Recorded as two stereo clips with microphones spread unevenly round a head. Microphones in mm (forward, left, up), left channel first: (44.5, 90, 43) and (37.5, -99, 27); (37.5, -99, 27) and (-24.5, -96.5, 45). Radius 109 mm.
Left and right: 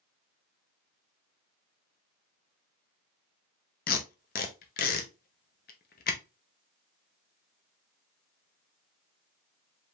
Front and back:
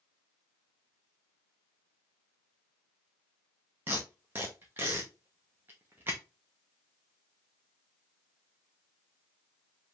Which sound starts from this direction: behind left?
Tape being pulled, at 3.9 s.